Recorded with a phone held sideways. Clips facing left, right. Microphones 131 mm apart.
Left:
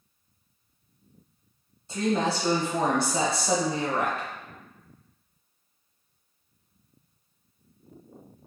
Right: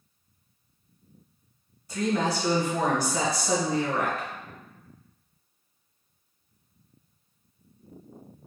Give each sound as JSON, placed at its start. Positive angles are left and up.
{"t": 1.9, "sound": "a woman speaking", "side_deg": 25, "distance_m": 0.7}